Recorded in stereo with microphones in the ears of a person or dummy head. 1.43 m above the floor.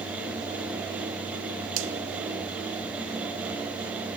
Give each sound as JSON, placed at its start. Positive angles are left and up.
{"t": 1.8, "sound": "a finger snap", "side_deg": -70, "distance_m": 2.5}